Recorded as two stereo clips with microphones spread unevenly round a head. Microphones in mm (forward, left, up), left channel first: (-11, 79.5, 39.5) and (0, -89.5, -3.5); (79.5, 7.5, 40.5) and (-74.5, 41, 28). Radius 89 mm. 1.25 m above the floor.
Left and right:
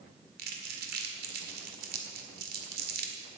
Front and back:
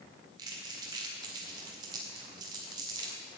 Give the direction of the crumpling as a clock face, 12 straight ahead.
4 o'clock.